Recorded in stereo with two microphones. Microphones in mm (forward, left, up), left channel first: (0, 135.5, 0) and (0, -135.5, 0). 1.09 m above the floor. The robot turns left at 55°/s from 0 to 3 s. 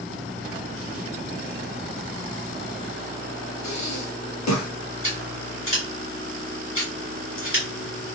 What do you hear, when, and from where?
3.6 s breathing: 80° left, 0.6 m
5.0 s scissors: 50° left (ahead or behind), 1.6 m